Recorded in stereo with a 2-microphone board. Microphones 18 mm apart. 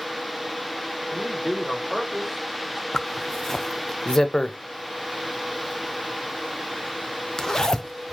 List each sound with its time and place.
1.1 s a man speaking: 5° right (ahead or behind), 4 m; by 2.8 s 10° left (ahead or behind), 3 m
2.9 s a zipper: 35° left (ahead or behind), 0.6 m